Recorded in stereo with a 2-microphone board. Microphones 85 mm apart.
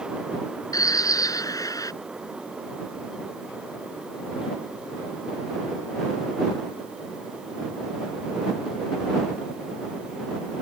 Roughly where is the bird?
Left.